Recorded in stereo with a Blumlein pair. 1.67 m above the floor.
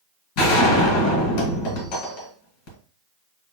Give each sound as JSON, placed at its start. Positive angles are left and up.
{"t": 0.4, "sound": "a gunshot", "azimuth_deg": 45, "distance_m": 2.0}